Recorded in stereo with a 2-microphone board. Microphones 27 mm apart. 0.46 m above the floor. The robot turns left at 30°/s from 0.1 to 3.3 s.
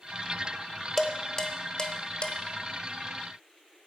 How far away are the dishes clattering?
About 1.0 m.